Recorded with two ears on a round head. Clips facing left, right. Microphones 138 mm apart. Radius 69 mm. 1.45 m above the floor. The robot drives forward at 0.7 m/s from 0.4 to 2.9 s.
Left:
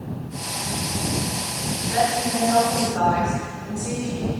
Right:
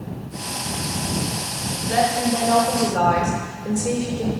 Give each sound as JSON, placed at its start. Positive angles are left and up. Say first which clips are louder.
{"t": 1.9, "sound": "a woman speaking", "louder": "right 2 dB", "side_deg": -45, "distance_m": 3.0}